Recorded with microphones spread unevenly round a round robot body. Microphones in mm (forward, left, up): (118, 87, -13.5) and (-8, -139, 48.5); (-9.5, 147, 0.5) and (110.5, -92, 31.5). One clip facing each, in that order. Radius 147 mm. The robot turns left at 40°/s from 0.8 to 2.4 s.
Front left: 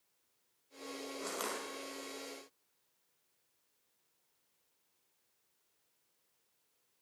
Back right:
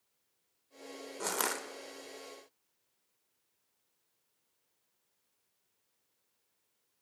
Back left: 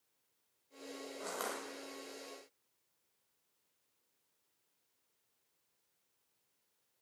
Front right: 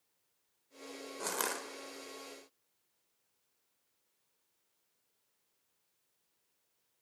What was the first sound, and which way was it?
Crushing, 100° right.